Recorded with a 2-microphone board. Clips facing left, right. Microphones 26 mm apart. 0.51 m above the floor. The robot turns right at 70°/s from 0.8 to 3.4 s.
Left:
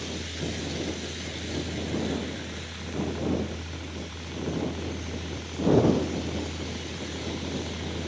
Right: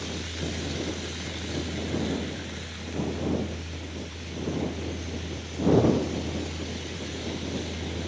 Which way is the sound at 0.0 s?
75° right (ahead or behind).